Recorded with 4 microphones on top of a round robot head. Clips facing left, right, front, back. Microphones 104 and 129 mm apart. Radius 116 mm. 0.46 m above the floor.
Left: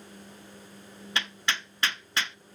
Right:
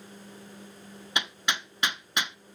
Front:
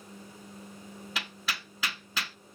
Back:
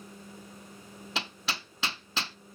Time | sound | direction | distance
1.1 | hammering | 150° right | 1.0 m